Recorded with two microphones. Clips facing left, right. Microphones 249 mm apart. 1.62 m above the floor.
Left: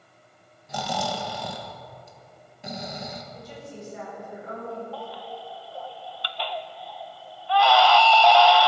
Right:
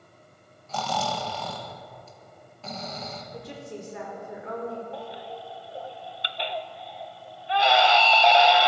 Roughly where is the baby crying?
Right.